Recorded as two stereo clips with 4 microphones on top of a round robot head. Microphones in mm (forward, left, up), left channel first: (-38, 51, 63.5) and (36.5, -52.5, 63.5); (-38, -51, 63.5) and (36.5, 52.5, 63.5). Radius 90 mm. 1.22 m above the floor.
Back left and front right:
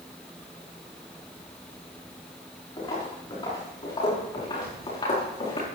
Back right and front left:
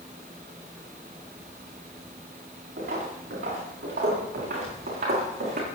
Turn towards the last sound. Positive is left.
turn(degrees=70)